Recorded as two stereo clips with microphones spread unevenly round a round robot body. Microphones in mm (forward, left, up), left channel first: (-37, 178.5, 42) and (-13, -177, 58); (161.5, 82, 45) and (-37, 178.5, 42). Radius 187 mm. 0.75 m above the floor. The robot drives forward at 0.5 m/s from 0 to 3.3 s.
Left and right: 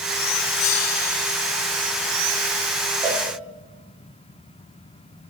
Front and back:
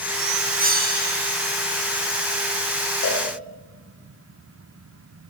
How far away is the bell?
About 2 m.